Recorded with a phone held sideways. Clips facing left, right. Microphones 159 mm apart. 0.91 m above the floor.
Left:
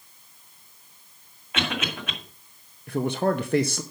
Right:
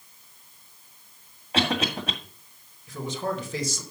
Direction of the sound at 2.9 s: 60° left (ahead or behind).